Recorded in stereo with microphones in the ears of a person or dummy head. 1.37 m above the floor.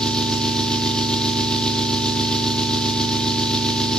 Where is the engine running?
5° left (ahead or behind), 0.9 m.